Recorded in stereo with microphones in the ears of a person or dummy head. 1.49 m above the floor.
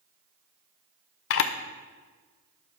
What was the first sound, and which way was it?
A camera shutter, 70° left (ahead or behind).